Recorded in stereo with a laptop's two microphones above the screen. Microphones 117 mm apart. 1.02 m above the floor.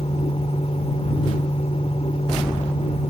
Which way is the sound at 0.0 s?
65° left (ahead or behind).